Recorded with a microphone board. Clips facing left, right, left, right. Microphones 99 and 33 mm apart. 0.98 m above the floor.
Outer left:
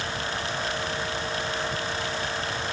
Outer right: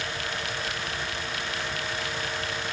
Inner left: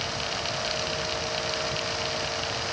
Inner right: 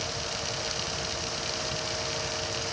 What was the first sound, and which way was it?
Only background noise.